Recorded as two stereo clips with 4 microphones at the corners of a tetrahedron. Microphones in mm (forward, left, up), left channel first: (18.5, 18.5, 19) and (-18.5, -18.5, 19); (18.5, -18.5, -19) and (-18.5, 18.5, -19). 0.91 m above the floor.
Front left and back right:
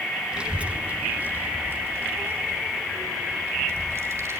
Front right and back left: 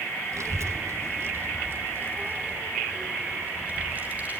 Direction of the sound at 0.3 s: 150° left.